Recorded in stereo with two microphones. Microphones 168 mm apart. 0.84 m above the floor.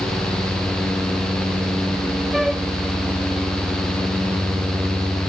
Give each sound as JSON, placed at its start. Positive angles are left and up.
{"t": 2.3, "sound": "a flute", "side_deg": 0}